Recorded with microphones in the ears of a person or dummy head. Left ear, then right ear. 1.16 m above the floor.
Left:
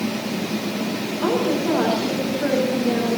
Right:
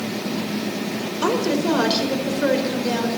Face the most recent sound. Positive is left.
turn(degrees=-70)  # may be behind; listen again after turning